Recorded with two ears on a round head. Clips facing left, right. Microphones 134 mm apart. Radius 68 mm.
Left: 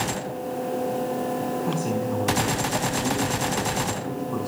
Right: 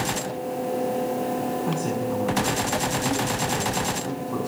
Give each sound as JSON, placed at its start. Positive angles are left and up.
{"t": 1.7, "sound": "a man speaking", "side_deg": 0, "distance_m": 8.5}